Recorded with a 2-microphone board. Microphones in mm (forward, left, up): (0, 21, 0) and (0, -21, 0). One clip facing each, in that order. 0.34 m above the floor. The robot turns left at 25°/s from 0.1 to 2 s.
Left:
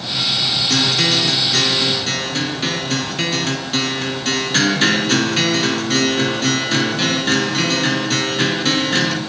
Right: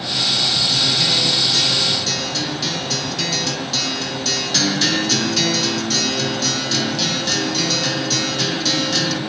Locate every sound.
0.7 s a guitar: 65° left, 4.5 m; by 9.2 s 35° left, 4.5 m